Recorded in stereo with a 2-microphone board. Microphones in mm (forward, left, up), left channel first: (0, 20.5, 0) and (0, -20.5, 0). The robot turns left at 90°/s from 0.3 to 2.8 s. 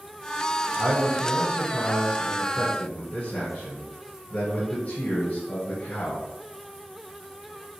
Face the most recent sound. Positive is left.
turn(degrees=100)